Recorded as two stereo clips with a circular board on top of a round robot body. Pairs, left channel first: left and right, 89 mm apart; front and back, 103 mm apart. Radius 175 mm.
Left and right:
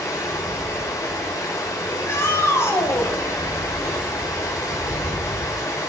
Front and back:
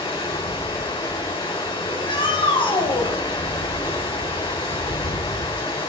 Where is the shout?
30° left, 3.5 m.